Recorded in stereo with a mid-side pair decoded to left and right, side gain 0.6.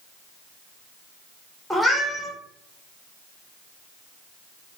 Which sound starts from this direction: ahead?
A cat meowing, at 1.7 s.